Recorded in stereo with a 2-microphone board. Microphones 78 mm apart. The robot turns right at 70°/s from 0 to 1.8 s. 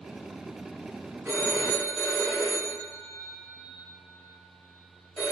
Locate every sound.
1.2 s a phone ringing: 35° right, 1.7 m; by 5.3 s 5° left, 1.7 m